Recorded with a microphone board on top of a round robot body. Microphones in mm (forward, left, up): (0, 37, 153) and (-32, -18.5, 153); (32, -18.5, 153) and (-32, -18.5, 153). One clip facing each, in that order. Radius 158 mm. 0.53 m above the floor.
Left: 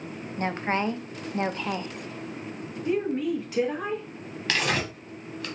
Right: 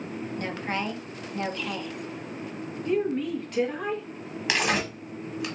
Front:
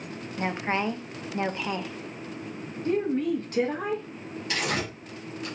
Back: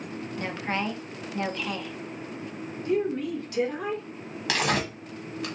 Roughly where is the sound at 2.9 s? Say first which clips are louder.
Even, front 1 dB; ahead.